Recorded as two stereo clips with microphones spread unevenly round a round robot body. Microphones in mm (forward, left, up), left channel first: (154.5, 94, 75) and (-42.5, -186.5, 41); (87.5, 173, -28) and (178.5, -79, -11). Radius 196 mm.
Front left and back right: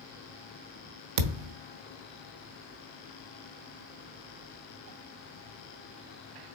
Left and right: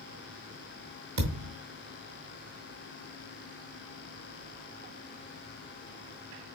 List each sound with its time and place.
1.2 s a thud: 120° right, 0.6 m